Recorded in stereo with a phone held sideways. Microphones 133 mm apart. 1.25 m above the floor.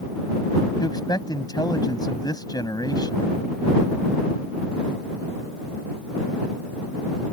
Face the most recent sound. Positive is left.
turn(degrees=30)  # may be behind; listen again after turning